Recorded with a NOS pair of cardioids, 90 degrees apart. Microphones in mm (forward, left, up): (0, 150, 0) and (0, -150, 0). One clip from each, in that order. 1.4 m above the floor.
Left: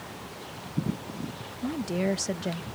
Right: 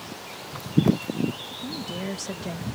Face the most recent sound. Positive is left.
turn(degrees=10)